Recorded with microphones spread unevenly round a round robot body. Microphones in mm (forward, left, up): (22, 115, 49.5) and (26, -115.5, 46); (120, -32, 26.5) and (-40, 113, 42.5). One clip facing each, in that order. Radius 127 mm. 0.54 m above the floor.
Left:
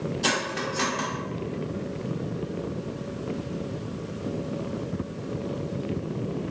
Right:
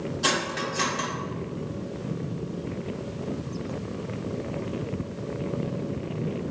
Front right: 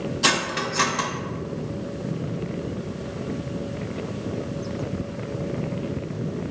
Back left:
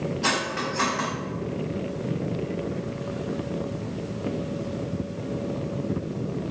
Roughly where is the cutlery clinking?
Ahead.